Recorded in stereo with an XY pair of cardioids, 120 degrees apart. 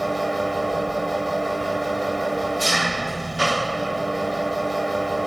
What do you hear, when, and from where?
0.0 s an engine running: 5° right